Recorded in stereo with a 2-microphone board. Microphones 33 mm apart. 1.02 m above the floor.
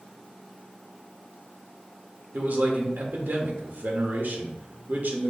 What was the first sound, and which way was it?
A man speaking, 70° right (ahead or behind).